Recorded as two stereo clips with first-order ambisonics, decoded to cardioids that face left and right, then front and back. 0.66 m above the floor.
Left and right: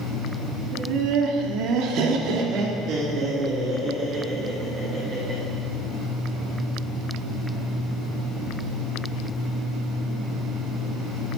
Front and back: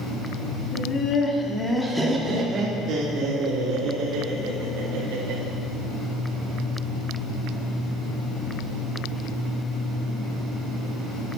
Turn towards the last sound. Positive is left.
turn(degrees=-165)